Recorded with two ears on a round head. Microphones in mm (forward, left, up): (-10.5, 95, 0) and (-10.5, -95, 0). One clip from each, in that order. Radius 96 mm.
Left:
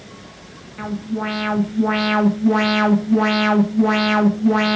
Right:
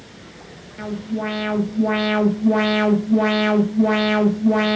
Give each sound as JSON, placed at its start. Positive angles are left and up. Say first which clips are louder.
{"t": 0.8, "sound": "an alarm", "louder": "left 1 dB", "side_deg": 25, "distance_m": 1.3}